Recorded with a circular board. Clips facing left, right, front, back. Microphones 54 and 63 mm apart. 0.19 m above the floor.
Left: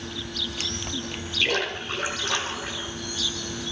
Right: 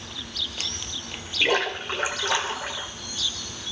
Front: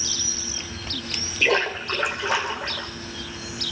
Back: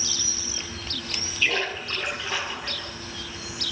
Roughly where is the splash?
Ahead.